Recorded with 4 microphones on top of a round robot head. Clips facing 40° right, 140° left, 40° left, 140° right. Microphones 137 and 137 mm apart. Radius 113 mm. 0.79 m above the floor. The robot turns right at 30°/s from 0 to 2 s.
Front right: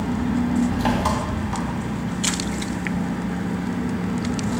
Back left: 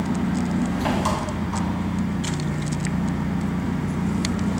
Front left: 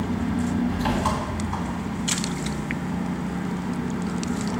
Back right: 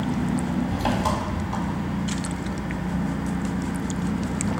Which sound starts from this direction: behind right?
An engine running, at 0.0 s.